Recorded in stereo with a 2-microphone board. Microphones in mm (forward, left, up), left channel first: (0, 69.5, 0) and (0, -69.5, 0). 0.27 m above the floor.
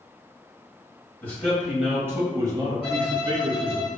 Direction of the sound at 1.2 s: 15° left (ahead or behind).